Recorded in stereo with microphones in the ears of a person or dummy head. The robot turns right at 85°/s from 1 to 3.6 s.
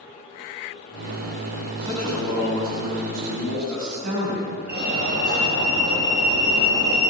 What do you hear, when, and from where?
1.8 s a man speaking: 150° left, 7.5 m; by 4.5 s 55° right, 7.5 m
4.7 s a fire alarm: 50° right (ahead or behind), 3.5 m